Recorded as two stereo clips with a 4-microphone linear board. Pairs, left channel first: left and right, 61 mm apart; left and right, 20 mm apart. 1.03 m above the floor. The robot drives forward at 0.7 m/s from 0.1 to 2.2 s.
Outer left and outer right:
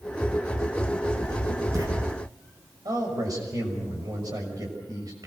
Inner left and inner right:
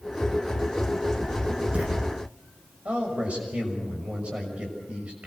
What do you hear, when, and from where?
1.2 s writing: 75° right (ahead or behind), 6 m; by 1.9 s 80° right, 6 m
2.9 s a man speaking: 85° right, 6 m